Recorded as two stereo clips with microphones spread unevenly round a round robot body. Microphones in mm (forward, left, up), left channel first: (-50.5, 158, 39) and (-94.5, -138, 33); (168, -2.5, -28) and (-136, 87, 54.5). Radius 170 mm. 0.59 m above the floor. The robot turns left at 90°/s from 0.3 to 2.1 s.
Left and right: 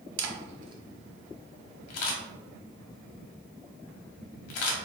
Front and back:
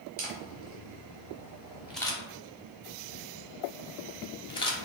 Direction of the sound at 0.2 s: 135° right.